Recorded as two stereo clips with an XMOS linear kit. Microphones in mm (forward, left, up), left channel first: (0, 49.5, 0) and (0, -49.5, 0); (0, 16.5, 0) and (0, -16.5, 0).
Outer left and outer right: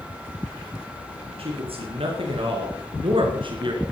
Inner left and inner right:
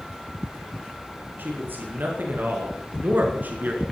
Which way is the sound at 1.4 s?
75° right (ahead or behind).